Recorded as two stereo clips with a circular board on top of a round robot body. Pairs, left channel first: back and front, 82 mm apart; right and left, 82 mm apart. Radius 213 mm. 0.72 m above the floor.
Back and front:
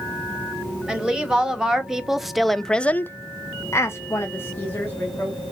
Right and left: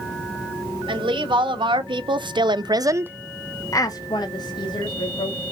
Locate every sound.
0.9 s a woman speaking: 80° left, 2 m; by 5.4 s 110° right, 2 m